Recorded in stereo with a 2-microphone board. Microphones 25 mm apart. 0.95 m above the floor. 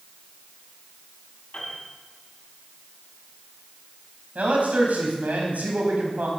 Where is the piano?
40° left (ahead or behind), 7 m.